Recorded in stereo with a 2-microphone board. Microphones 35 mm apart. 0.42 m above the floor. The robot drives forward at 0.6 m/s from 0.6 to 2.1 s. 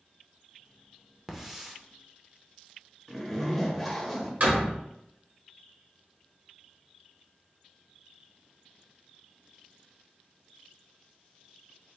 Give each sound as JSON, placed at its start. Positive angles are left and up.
{"t": 1.3, "sound": "a hiss", "side_deg": -10, "distance_m": 0.6}
{"t": 3.1, "sound": "a zipper", "side_deg": 0, "distance_m": 0.7}
{"t": 4.4, "sound": "a door slam", "side_deg": -50, "distance_m": 1.3}